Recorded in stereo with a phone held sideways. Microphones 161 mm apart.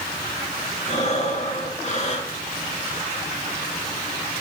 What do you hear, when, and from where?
0.9 s breathing: 45° left (ahead or behind), 4 m